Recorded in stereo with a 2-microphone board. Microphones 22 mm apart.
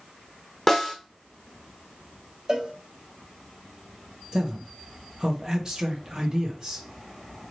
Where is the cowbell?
30° right (ahead or behind), 0.9 m.